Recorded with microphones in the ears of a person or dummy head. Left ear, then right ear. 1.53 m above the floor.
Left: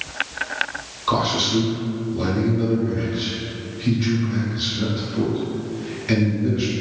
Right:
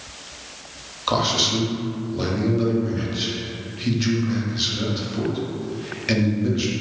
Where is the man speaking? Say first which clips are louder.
Even; 15° right (ahead or behind), 0.6 m.